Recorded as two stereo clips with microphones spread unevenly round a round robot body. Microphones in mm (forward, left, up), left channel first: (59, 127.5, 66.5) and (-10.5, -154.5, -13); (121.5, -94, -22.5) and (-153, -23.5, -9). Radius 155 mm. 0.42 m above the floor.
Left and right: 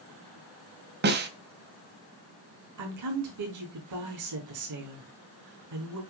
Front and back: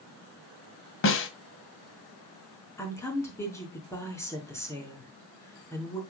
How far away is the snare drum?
About 1.7 m.